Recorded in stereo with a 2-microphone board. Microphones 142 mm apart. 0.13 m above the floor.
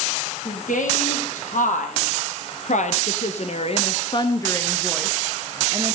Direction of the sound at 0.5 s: 75° left (ahead or behind).